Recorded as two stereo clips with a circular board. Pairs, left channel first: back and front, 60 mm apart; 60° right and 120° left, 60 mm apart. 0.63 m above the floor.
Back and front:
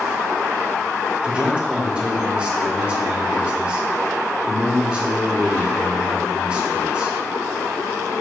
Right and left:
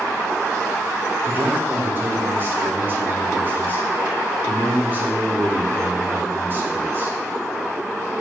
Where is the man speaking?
70° left, 0.9 m.